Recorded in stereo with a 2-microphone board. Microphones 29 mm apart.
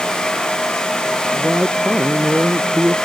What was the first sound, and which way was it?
A woman speaking, 60° right (ahead or behind).